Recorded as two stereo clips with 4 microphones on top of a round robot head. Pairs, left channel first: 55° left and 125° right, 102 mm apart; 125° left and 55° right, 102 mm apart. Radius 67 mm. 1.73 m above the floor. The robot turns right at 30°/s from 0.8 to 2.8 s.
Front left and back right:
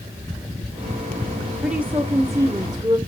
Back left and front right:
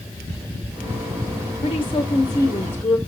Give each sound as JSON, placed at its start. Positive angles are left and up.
{"t": 1.6, "sound": "a woman speaking", "azimuth_deg": 155, "distance_m": 0.9}